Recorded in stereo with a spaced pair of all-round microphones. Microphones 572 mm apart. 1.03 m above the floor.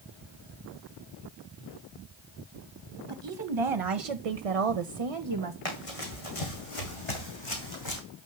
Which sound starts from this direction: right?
A woman speaking, at 3.1 s.